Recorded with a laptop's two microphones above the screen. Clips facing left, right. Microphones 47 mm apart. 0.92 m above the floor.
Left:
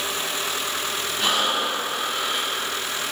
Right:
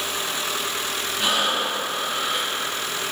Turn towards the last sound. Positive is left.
turn(degrees=-15)  # may be behind; listen again after turning